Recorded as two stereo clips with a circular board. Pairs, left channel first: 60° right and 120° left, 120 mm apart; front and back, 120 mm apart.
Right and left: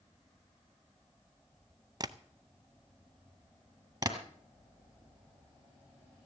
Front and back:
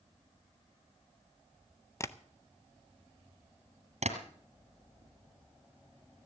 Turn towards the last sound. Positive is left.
turn(degrees=175)